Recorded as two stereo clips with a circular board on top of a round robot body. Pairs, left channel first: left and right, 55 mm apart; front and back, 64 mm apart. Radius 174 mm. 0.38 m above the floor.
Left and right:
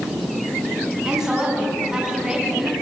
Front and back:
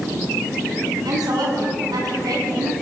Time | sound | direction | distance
1.1 | a woman speaking | 170° right | 5.5 m